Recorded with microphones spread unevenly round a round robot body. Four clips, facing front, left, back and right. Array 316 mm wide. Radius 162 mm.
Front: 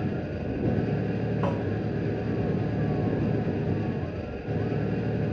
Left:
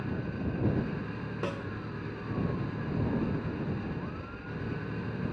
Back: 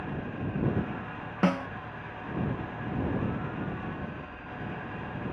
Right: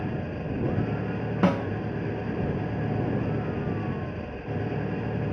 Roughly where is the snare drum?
Behind right.